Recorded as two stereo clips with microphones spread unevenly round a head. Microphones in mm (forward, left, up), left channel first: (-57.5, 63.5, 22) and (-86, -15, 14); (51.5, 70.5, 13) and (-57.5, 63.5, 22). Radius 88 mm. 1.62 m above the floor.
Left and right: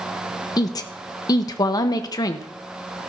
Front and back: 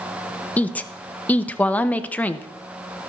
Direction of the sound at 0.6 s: 80° left.